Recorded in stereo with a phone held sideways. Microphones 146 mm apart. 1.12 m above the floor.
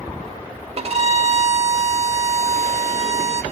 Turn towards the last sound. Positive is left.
turn(degrees=-45)  # may be behind; listen again after turning